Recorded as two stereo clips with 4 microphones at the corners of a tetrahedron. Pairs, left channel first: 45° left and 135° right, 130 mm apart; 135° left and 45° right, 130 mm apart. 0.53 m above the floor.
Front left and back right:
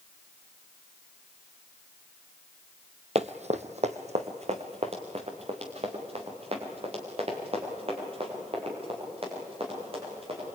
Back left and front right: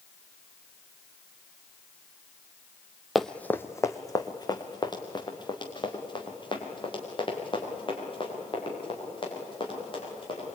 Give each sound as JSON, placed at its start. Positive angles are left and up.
{"t": 3.1, "sound": "running footsteps", "azimuth_deg": -135, "distance_m": 0.9}